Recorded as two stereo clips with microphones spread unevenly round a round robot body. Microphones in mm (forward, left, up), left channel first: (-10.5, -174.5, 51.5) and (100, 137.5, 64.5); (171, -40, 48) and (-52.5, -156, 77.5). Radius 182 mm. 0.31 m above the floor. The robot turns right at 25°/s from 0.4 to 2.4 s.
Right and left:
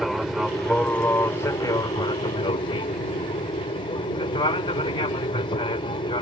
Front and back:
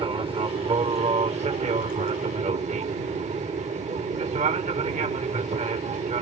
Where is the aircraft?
165° left; by 6.2 s 145° right.